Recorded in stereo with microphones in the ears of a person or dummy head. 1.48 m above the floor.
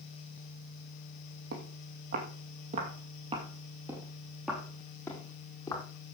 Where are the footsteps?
60° right (ahead or behind), 3.5 m; by 5.8 s 20° left (ahead or behind), 4 m.